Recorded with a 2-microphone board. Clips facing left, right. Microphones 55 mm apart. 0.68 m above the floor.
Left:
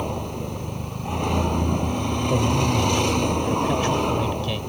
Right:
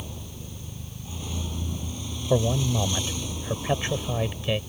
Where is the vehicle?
60° left (ahead or behind).